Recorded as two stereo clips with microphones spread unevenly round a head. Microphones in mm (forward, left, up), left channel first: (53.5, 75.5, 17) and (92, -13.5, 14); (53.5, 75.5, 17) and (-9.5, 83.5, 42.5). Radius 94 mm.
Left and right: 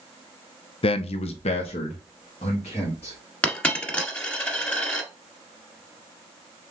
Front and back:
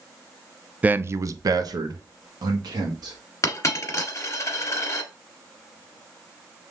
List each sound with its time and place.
0.8 s a man speaking: 95° left, 0.5 m; by 3.2 s 165° left, 1.7 m
3.4 s a dropped coin: 40° left, 1.6 m